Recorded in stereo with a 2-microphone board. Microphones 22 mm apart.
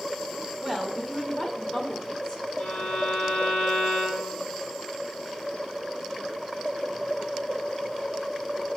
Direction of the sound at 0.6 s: 15° left (ahead or behind).